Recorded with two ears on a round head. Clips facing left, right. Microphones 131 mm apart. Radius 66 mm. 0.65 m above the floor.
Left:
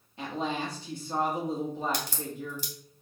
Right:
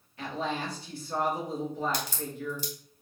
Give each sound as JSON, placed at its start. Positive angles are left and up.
{"t": 0.2, "sound": "a woman speaking", "side_deg": 20, "distance_m": 1.3}
{"t": 1.9, "sound": "a crack", "side_deg": 45, "distance_m": 1.4}